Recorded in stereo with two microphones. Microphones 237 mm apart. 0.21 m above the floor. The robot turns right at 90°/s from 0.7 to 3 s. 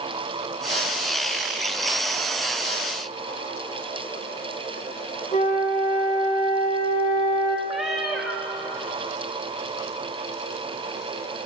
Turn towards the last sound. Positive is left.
turn(degrees=0)  # may be behind; listen again after turning